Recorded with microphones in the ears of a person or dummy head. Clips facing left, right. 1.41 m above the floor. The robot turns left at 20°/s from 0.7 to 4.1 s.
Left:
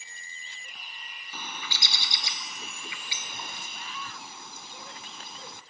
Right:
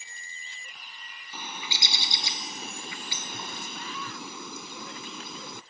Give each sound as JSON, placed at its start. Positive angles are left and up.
{"t": 1.3, "sound": "a bird", "azimuth_deg": -5}